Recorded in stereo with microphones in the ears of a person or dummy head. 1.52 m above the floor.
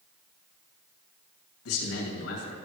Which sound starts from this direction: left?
A man speaking, at 1.6 s.